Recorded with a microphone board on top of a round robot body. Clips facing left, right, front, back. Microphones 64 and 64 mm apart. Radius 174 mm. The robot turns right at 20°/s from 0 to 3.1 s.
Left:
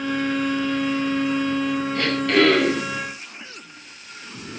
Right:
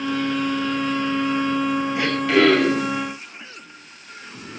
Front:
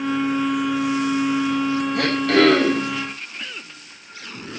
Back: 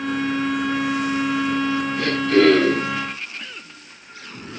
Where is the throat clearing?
15° right, 6 m; by 2.9 s 5° left, 6 m.